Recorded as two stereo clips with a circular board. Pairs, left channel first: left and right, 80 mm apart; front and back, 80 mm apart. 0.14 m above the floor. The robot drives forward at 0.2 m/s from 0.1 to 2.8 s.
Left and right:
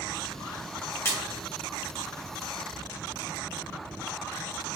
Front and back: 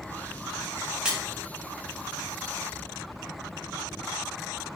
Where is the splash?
110° left, 1.4 m.